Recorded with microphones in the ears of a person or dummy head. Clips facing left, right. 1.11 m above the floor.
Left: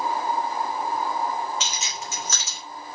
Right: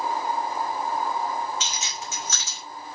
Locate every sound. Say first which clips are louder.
1.6 s keys jangling: left 1 dB; 55° left (ahead or behind), 2.5 m